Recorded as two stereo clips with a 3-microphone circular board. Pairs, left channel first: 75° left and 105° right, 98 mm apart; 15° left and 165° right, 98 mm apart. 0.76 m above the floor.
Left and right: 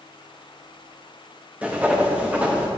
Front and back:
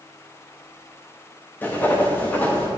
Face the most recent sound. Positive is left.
turn(degrees=-35)